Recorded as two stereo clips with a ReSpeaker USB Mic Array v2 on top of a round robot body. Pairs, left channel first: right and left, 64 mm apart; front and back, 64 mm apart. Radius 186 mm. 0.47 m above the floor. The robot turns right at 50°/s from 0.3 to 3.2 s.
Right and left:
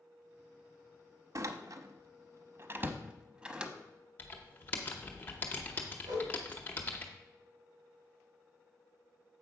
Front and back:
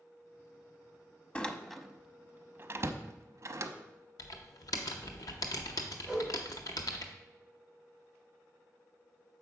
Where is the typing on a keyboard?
30° right, 0.5 m.